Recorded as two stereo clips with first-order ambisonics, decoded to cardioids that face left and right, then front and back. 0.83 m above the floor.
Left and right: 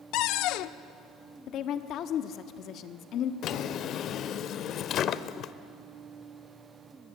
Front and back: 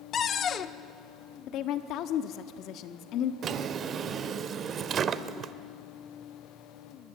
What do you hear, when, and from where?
0.1 s a cupboard door: 60° left, 0.7 m
1.5 s a woman speaking: 40° left, 1.3 m
3.4 s a drawer: 130° left, 0.7 m